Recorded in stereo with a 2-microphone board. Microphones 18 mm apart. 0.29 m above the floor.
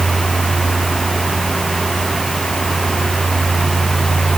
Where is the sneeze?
I don't hear a sneeze.